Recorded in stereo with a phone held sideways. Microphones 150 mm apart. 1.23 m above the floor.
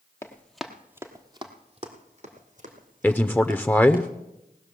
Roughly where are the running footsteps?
Centre.